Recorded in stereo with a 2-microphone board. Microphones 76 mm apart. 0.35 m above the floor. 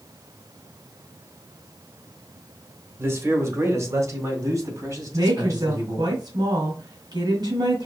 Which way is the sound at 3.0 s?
30° right (ahead or behind).